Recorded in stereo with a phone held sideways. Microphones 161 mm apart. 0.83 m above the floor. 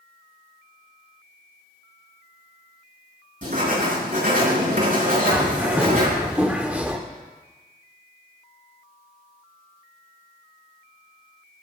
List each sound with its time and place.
3.4 s writing: 55° right (ahead or behind), 5.5 m
5.3 s a bird: 10° right (ahead or behind), 1.5 m